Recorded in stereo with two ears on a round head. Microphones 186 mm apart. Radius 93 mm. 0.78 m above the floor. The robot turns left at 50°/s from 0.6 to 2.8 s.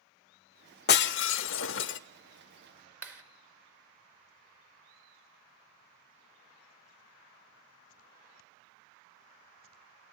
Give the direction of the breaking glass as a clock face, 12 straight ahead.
8 o'clock.